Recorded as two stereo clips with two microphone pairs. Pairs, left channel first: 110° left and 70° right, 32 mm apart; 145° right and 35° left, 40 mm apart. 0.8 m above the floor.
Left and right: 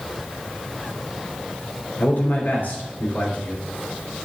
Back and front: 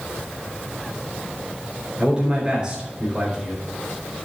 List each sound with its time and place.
2.0 s a man speaking: 100° left, 3.5 m